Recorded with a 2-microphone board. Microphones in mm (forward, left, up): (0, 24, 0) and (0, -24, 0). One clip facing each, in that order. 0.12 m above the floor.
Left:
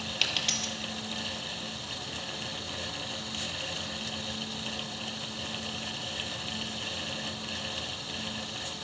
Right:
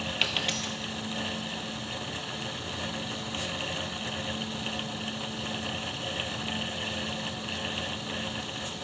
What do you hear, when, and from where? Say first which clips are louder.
0.2 s a dropped coin: right 1 dB; 10° right (ahead or behind), 1.0 m